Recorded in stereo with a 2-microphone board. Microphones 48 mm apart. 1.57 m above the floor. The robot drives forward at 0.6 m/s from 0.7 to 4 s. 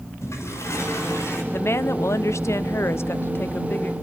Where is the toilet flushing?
75° left (ahead or behind), 6 m.